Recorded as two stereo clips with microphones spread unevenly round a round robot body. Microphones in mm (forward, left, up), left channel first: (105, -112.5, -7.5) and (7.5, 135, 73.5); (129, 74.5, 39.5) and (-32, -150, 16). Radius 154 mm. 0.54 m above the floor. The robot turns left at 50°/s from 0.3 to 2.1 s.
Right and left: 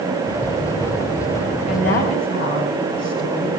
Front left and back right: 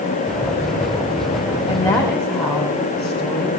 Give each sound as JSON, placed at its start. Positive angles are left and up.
{"t": 1.7, "sound": "a woman speaking", "azimuth_deg": -15, "distance_m": 4.0}